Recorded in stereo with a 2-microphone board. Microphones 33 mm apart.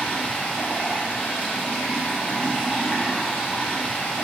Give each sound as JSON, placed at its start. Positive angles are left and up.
{"t": 0.0, "sound": "running water", "side_deg": 55, "distance_m": 2.0}